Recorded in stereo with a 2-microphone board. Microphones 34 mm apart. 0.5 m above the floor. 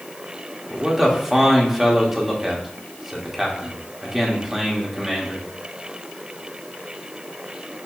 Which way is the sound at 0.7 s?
10° right (ahead or behind).